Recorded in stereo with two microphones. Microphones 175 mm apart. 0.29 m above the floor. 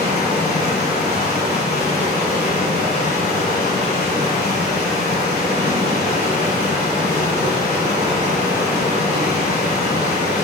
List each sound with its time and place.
0.0 s running water: 55° left (ahead or behind), 1.4 m